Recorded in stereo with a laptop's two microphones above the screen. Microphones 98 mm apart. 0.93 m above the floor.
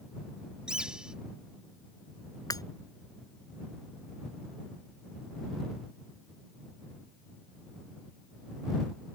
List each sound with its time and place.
0.7 s a bird: 10° right (ahead or behind)
2.5 s breaking glass: 40° left (ahead or behind)